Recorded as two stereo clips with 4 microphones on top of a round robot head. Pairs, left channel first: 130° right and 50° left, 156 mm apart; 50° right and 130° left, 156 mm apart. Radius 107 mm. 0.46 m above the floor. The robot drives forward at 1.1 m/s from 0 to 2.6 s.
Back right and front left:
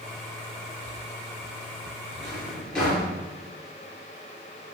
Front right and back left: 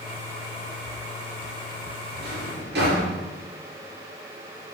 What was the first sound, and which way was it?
A drawer, 140° left.